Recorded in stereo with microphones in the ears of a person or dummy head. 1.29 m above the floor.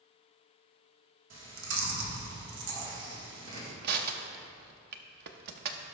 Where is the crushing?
60° right (ahead or behind), 0.8 m.